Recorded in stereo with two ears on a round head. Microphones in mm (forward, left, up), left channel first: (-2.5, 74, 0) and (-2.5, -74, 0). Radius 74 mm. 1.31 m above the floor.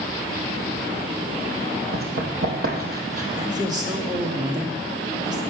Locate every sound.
1.9 s running footsteps: 65° right (ahead or behind), 4 m; by 3.2 s 55° right (ahead or behind), 3 m
3.4 s a woman speaking: 25° right (ahead or behind), 2.5 m